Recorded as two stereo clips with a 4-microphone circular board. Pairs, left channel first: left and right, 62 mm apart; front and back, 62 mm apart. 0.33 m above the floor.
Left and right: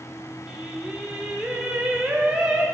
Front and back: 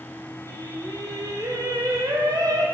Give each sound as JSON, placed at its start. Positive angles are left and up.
{"t": 0.5, "sound": "singing", "azimuth_deg": -170, "distance_m": 3.5}